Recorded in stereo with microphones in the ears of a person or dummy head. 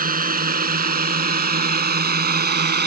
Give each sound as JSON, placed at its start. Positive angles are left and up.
{"t": 0.0, "sound": "a drone", "side_deg": -45}